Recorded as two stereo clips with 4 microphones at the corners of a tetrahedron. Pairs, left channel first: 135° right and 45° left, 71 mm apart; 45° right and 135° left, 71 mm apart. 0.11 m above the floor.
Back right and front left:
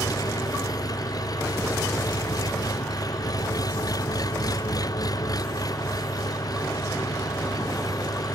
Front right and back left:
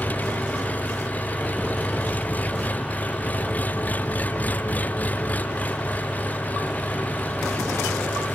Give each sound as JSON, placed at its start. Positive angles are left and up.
{"t": 0.0, "sound": "an engine running", "azimuth_deg": -110}